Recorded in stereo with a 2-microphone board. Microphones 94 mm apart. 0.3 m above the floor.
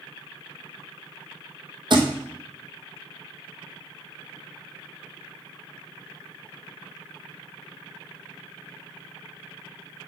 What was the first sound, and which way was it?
A thud, 50° right (ahead or behind).